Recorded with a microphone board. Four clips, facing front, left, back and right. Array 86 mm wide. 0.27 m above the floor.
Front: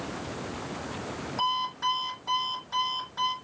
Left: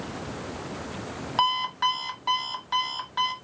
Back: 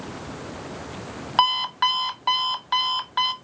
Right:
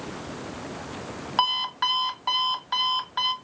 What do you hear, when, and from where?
1.4 s an alarm clock: 170° right, 0.8 m